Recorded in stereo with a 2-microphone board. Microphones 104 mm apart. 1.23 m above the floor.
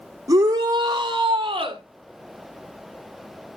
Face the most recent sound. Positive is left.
turn(degrees=-55)  # may be behind; listen again after turning